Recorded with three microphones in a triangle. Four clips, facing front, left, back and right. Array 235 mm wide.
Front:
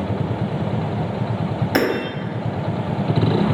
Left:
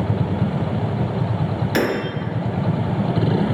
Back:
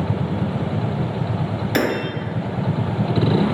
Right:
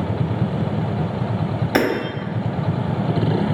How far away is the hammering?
About 0.8 m.